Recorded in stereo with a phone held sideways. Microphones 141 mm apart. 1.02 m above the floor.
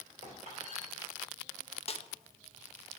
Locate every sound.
0.2 s a squeak: 60° right (ahead or behind), 3.5 m
1.9 s a snare drum: 45° left (ahead or behind), 0.6 m